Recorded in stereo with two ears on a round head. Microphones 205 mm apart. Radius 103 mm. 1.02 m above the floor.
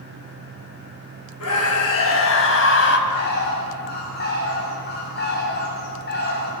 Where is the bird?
45° left (ahead or behind), 7.5 m.